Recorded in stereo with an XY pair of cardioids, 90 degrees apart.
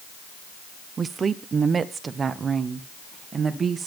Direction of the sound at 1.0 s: 45° right.